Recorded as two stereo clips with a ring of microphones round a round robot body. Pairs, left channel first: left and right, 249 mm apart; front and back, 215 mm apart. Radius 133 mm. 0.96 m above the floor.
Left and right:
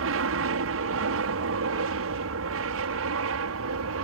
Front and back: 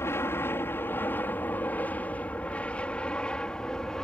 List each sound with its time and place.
0.0 s an aircraft: 80° right; by 4.0 s 85° right